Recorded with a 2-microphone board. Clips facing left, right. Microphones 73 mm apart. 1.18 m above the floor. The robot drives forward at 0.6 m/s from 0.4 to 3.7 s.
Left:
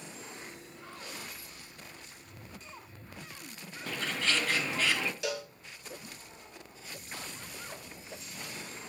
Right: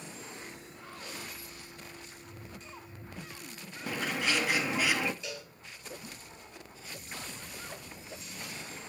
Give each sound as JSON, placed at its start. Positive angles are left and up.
{"t": 3.9, "sound": "a bird", "side_deg": -10, "distance_m": 0.9}
{"t": 5.2, "sound": "a cowbell", "side_deg": 75, "distance_m": 1.3}